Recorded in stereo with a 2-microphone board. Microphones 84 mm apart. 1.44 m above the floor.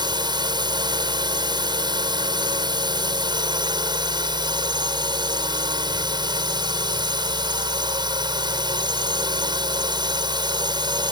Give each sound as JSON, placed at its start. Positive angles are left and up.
{"t": 0.0, "sound": "a drone", "side_deg": -65}